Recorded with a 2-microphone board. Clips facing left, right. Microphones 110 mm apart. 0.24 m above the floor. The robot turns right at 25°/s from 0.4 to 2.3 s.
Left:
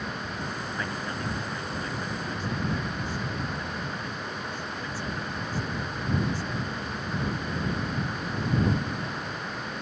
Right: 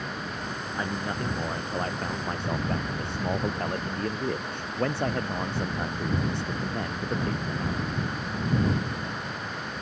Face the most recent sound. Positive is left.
turn(degrees=-115)